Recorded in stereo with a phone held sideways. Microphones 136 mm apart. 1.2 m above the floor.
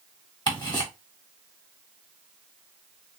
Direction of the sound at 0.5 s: 30° left (ahead or behind).